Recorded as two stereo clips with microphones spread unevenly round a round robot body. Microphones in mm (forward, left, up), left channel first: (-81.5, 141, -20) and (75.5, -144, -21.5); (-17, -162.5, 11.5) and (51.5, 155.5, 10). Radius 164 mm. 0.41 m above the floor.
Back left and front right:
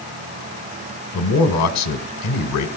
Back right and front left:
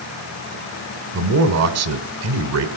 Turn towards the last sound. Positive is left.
turn(degrees=100)